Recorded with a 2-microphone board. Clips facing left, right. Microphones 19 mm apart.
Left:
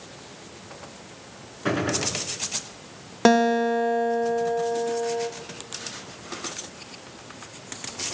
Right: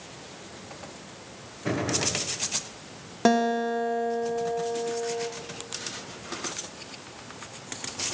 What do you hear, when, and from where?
1.6 s a gunshot: 55° left (ahead or behind), 7.5 m
3.2 s a guitar: 25° left (ahead or behind), 1.2 m